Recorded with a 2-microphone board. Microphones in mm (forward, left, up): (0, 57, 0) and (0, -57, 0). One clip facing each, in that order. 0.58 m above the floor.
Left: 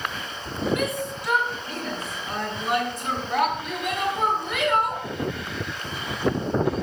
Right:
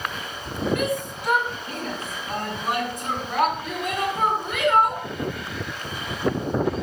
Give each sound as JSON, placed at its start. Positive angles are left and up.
{"t": 0.8, "sound": "a shout", "side_deg": -60, "distance_m": 4.5}